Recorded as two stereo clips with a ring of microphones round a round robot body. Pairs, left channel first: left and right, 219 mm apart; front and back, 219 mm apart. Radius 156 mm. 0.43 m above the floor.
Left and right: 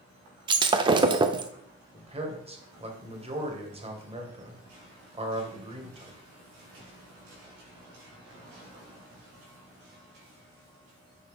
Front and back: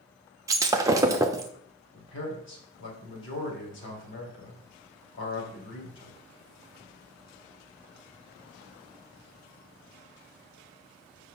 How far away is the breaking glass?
About 0.5 m.